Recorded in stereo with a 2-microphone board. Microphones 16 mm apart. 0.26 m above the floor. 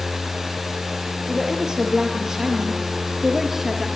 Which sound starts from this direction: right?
A woman speaking, at 1.3 s.